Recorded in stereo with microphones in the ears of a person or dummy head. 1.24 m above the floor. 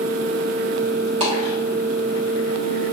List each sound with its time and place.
1.2 s a dropped coin: 25° right (ahead or behind), 0.9 m